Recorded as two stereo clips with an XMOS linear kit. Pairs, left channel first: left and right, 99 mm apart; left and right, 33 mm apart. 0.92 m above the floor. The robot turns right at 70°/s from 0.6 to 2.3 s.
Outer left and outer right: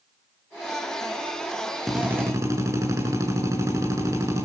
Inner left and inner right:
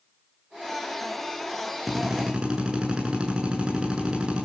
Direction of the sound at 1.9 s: Straight behind.